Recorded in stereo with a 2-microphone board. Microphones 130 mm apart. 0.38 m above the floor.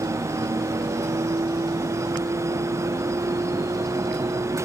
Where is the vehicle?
35° right (ahead or behind); by 4.7 s 30° right (ahead or behind).